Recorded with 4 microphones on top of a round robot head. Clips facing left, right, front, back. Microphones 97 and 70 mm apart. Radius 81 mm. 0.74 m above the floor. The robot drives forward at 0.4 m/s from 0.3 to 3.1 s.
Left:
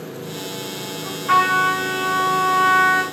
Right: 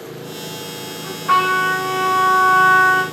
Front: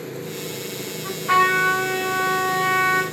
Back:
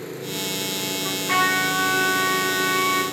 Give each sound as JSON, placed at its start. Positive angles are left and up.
{"t": 1.0, "sound": "a trumpet", "azimuth_deg": -35, "distance_m": 2.5}